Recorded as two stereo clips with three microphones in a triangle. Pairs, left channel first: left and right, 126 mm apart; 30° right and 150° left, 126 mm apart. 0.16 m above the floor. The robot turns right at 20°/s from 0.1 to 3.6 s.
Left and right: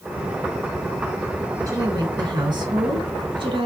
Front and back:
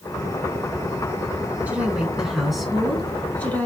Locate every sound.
1.7 s a woman speaking: 140° right, 1.4 m; by 3.7 s 100° right, 1.4 m